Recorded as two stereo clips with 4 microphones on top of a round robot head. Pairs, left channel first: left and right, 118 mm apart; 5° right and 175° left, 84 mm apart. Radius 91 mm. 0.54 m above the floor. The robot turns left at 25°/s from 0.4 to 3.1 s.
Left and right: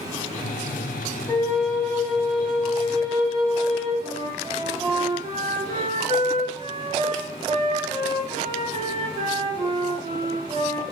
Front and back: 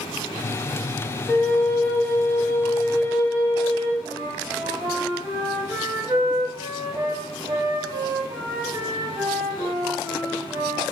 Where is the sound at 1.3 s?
55° left, 0.7 m; by 3.9 s 5° left, 0.7 m.